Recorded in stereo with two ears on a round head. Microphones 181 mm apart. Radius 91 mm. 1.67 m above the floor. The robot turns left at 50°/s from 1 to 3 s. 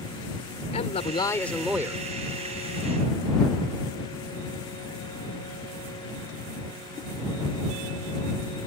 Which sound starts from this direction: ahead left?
A man speaking, at 0.7 s.